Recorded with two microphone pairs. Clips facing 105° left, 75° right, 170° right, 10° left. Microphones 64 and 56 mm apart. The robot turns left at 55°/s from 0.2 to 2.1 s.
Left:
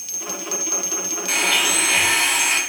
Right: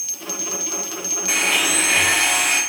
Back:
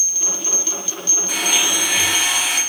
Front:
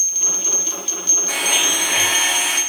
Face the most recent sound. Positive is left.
turn(degrees=-40)